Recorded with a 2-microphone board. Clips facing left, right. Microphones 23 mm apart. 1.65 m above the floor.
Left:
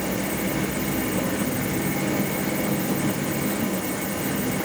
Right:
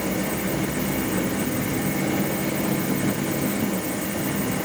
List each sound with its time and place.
Only background noise.